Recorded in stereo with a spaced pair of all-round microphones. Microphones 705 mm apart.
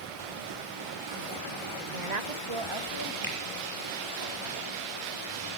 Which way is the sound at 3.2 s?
30° right (ahead or behind).